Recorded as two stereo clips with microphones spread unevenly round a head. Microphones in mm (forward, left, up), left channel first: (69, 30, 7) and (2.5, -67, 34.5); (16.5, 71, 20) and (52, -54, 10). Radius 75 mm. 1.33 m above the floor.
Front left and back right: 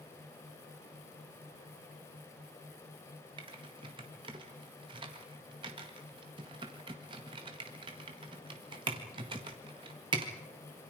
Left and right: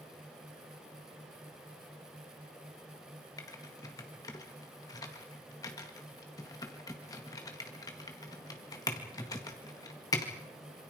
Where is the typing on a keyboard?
175° left, 1.8 m.